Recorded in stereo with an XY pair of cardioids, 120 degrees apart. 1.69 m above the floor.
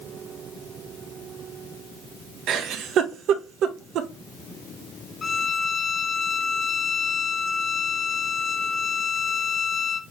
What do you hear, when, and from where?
2.5 s a giggle: 65° right, 0.8 m
5.2 s a violin: 35° left, 0.7 m